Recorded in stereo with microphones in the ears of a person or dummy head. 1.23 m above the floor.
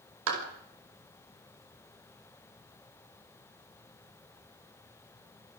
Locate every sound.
0.3 s a clap: 90° right, 5 m